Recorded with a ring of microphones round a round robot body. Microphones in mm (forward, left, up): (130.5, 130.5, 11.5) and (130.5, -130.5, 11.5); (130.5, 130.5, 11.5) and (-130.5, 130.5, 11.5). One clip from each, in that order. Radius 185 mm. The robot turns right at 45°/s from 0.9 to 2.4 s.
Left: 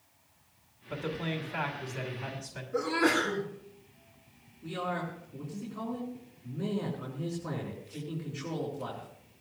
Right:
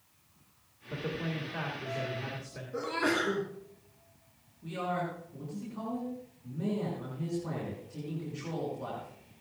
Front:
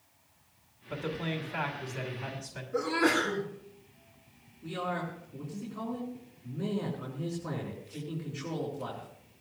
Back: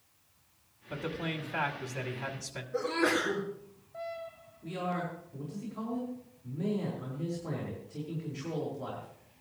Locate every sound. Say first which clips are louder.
0.9 s a man speaking: left 1 dB, front 1 dB; 85° left, 2.5 m; by 2.6 s 155° left, 2.5 m
2.7 s a sneeze: left 3 dB, front 2 dB; 35° left, 3 m
4.6 s a man speaking: right 1 dB, front 1 dB; 45° left, 4.5 m